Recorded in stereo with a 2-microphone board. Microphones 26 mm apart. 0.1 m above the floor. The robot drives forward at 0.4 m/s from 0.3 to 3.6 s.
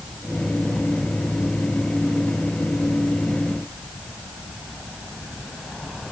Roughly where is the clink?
No clink in this recording.